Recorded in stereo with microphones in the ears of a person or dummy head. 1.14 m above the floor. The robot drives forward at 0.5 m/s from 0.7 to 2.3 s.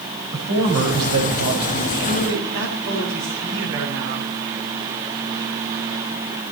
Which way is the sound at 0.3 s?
75° right (ahead or behind).